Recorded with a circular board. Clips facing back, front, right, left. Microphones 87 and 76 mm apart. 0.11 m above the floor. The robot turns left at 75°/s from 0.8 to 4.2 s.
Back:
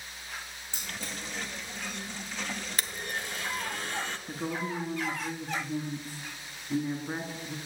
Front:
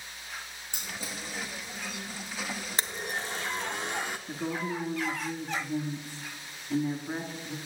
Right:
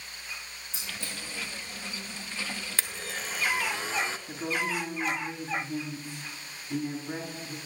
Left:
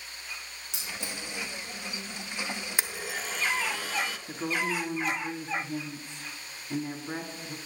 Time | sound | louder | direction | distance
0.7 | keys jangling | even, left 1 dB | 75° left | 5 m
2.8 | a blender | front 4 dB, left 2 dB | 35° left | 0.7 m
4.3 | a woman speaking | even, left 1 dB | 125° left | 1.4 m